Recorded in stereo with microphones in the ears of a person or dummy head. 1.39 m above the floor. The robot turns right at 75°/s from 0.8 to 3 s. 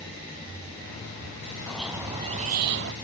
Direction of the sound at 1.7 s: 165° left.